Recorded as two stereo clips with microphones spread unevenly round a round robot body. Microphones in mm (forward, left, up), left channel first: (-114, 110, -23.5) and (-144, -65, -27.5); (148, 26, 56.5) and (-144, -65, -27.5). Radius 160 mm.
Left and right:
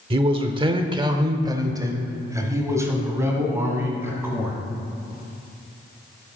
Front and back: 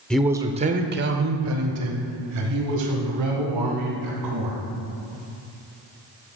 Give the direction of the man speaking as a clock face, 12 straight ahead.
3 o'clock.